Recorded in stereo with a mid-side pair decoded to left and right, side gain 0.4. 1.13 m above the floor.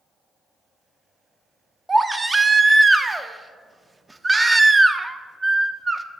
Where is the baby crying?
25° right, 0.6 m.